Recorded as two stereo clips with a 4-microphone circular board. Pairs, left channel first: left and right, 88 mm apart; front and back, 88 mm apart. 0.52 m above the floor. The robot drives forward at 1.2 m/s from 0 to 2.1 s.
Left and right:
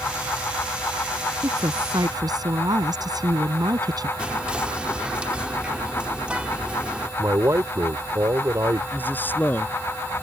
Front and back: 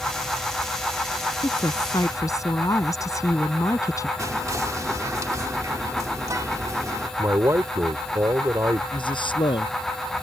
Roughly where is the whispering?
Behind.